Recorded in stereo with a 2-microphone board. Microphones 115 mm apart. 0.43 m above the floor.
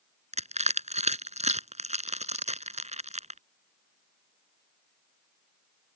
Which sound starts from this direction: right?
Crushing, at 0.3 s.